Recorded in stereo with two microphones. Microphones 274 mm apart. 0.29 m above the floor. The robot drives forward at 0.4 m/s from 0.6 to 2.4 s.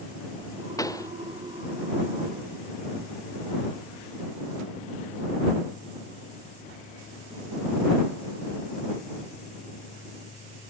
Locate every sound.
0.8 s a pop: 10° left (ahead or behind)